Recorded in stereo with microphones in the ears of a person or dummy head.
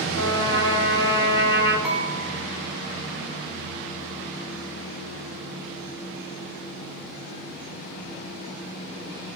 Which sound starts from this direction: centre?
Dishes clattering, at 1.8 s.